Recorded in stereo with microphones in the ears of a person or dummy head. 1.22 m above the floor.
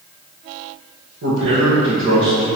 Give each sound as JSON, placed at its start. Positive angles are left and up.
{"t": 1.2, "sound": "a man speaking", "side_deg": -60, "distance_m": 0.9}